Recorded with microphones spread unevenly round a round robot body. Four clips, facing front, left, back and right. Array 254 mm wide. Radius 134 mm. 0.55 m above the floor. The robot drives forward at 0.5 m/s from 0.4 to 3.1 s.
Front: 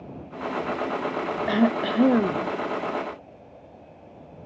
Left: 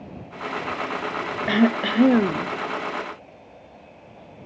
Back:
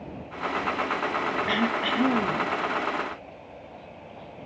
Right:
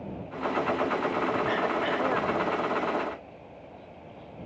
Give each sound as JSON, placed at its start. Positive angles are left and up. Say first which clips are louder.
{"t": 1.5, "sound": "throat clearing", "louder": "left 6 dB, front 8 dB", "azimuth_deg": 60}